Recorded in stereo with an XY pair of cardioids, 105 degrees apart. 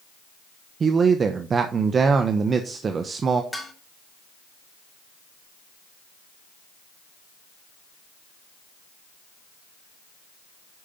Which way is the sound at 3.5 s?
10° left.